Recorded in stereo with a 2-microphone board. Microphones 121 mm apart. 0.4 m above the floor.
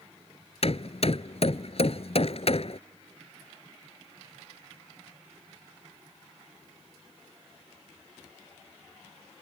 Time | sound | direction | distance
0.6 | hammering | 55° left (ahead or behind) | ?